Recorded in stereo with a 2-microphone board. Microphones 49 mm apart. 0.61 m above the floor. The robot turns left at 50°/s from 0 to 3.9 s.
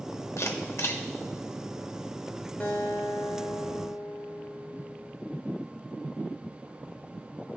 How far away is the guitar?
About 1.2 m.